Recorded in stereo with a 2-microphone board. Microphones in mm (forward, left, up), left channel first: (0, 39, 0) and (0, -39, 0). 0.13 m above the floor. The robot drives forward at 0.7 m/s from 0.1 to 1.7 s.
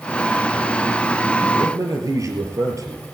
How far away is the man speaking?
About 3 m.